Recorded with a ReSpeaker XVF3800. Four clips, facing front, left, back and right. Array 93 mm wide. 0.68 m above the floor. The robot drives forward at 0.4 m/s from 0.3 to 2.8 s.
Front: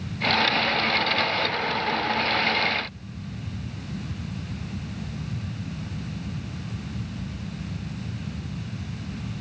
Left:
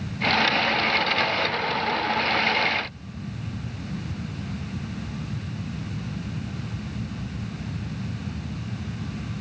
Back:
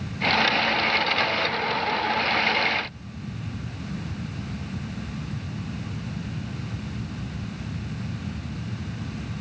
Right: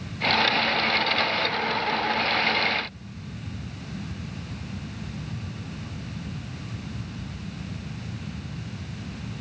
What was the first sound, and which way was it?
Only background noise.